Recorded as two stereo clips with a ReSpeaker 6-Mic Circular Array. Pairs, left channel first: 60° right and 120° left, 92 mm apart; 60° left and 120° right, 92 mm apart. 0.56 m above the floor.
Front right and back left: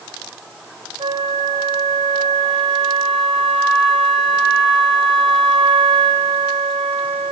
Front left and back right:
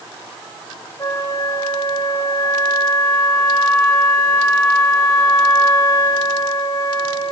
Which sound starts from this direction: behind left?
A flute, at 1.0 s.